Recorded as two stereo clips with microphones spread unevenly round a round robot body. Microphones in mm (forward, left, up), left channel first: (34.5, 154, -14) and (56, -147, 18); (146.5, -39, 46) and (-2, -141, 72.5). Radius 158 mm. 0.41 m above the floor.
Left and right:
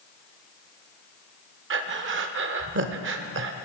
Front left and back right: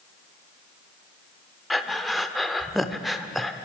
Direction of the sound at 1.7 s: 45° right.